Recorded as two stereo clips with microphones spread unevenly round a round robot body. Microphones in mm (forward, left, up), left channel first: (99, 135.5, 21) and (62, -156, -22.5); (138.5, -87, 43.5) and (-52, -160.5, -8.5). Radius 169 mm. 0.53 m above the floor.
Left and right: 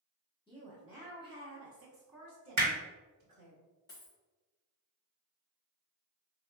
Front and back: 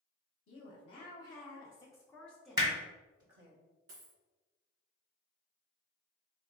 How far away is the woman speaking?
About 1.1 m.